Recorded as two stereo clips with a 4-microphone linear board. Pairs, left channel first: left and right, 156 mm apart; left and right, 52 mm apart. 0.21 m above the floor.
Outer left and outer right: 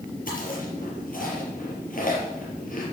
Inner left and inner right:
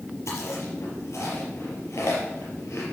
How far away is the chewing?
About 5 m.